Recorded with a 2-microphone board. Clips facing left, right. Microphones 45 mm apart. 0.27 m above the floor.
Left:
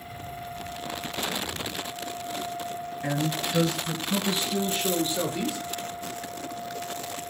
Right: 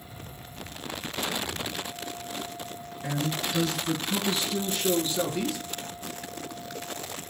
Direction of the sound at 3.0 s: 35° left (ahead or behind).